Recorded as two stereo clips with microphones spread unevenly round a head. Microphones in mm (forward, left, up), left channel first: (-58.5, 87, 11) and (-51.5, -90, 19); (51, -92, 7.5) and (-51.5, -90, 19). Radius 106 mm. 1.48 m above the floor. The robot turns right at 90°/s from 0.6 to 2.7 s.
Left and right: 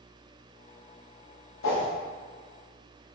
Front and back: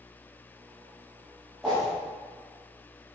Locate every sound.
1.6 s a whoosh: 90° left, 1.3 m; by 1.9 s 110° left, 1.3 m